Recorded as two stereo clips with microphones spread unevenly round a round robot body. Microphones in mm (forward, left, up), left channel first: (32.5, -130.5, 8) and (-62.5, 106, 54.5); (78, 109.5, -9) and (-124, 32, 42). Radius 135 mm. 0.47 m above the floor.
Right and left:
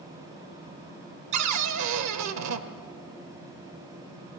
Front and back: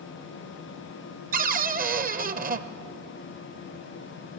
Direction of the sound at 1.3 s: 145° left.